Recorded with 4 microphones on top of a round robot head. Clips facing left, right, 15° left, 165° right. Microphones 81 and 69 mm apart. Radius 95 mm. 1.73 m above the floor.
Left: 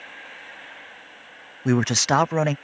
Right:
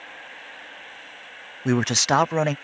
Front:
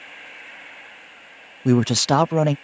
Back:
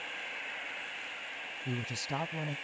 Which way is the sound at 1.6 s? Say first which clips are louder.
Left 1 dB, front 21 dB; straight ahead.